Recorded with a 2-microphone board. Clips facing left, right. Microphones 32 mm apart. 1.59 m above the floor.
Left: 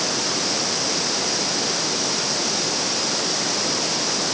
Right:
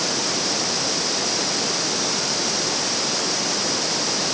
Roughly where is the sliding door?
No sliding door in this recording.